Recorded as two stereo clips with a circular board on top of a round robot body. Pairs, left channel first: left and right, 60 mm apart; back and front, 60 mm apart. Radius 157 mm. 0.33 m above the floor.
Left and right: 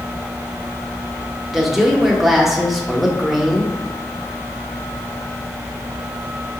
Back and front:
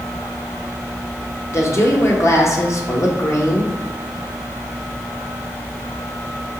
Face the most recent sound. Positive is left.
turn(degrees=-175)